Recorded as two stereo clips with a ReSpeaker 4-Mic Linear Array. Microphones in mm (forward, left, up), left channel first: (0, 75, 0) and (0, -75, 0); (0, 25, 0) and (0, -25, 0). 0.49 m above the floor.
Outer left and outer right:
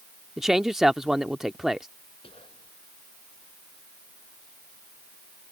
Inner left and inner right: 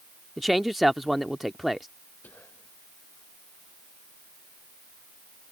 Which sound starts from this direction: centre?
A man speaking, at 0.4 s.